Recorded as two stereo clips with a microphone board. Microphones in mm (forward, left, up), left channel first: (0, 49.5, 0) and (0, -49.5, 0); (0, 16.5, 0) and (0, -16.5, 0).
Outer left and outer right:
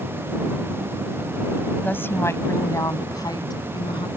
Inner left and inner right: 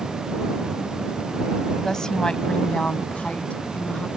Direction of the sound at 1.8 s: 20° left (ahead or behind).